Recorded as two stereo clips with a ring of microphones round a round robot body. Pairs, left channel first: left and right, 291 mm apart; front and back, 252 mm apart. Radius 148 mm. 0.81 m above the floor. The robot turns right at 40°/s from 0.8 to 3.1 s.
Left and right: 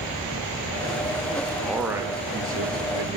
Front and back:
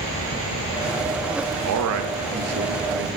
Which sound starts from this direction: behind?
A man speaking, at 1.6 s.